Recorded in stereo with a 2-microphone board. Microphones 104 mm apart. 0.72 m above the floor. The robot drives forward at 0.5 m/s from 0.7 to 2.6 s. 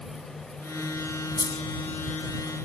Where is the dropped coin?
50° left (ahead or behind).